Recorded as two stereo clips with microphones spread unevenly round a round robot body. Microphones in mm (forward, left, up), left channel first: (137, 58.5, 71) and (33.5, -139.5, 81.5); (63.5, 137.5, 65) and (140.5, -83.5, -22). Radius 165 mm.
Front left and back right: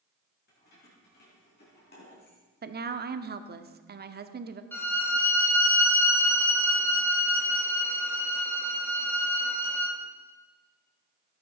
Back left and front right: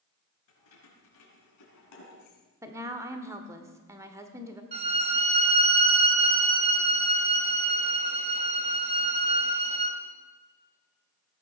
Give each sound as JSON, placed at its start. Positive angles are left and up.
{"t": 0.5, "sound": "keys jangling", "azimuth_deg": 120, "distance_m": 4.5}
{"t": 2.6, "sound": "a woman speaking", "azimuth_deg": -115, "distance_m": 1.0}
{"t": 4.7, "sound": "a violin", "azimuth_deg": -20, "distance_m": 2.0}